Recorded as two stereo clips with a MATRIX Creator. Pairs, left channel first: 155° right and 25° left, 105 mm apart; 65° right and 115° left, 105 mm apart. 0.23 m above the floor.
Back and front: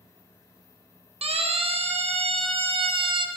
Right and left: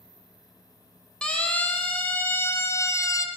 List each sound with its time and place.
1.2 s a siren: 15° left, 6 m; by 3.3 s 15° right, 4 m